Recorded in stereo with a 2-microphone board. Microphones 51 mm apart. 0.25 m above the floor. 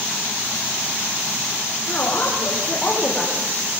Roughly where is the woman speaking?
Left.